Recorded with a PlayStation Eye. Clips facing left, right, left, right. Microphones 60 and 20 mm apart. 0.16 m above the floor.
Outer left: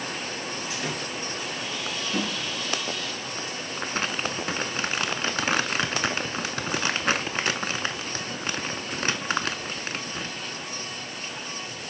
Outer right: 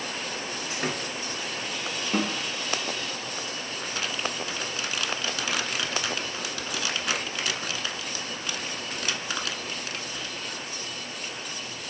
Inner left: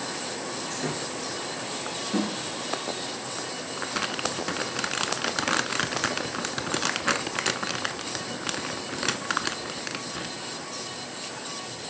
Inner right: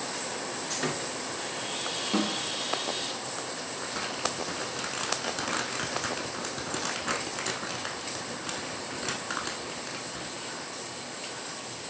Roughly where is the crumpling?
Left.